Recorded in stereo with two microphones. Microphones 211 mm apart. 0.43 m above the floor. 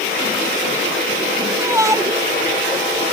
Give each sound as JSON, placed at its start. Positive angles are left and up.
{"t": 1.6, "sound": "a shout", "side_deg": -15}